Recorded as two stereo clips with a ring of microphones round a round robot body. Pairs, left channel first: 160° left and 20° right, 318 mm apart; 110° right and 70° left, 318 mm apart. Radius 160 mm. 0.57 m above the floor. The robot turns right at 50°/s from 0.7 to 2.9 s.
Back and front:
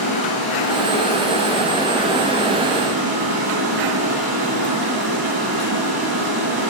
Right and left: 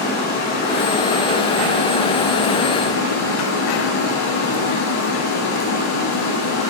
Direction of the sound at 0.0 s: Straight behind.